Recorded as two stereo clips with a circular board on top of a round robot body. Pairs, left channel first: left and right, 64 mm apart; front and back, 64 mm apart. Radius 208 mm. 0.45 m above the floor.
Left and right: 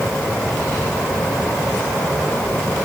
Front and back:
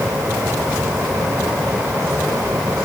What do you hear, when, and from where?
Only background noise.